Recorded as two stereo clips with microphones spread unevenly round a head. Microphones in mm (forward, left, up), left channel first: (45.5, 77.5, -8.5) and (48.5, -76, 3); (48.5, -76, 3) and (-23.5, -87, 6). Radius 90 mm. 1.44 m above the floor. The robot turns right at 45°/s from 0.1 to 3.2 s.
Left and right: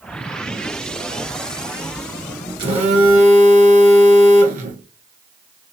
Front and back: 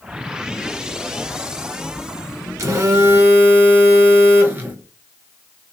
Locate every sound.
2.6 s a phone buzzing: 145° right, 0.8 m; by 5.7 s 115° right, 0.8 m